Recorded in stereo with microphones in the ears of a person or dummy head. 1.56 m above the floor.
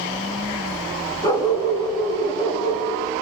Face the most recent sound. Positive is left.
turn(degrees=25)  # may be behind; listen again after turning